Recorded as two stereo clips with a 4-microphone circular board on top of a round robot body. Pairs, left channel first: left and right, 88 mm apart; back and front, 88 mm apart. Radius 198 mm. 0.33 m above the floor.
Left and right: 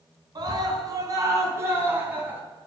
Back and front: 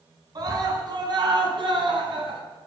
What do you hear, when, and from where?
0.3 s a scream: 45° right, 5 m; by 2.4 s 20° right, 4.5 m